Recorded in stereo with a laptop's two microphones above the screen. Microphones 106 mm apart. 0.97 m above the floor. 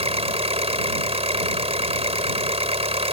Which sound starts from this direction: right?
An engine running, at 0.0 s.